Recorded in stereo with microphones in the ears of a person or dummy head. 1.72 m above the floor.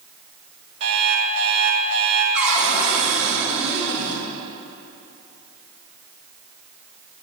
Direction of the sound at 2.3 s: 5° right (ahead or behind).